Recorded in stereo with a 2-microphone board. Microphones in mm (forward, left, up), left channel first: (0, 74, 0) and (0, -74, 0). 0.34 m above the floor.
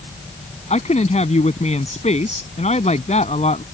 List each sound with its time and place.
0.7 s a woman speaking: 50° left (ahead or behind)